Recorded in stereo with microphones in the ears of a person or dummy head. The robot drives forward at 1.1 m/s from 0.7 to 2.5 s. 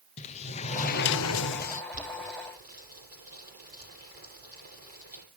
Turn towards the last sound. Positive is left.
turn(degrees=-45)  # may be behind; listen again after turning